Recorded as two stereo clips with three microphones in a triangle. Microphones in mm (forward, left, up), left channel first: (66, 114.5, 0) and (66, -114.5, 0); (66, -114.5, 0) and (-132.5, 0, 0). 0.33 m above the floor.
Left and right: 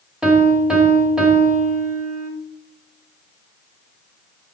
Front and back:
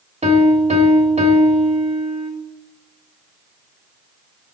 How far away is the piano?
About 1.0 m.